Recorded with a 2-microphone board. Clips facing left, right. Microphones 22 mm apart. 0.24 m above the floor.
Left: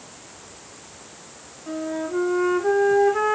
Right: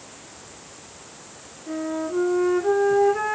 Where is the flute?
25° left (ahead or behind), 2 m.